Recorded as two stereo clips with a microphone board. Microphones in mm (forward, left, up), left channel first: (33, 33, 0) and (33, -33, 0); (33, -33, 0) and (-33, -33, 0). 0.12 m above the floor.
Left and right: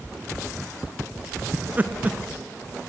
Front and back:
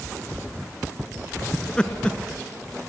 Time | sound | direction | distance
1.5 | laughter | 60° right | 1.2 m